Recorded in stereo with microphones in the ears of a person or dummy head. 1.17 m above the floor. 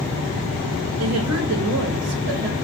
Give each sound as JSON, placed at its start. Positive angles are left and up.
{"t": 1.0, "sound": "a woman speaking", "side_deg": -65, "distance_m": 1.1}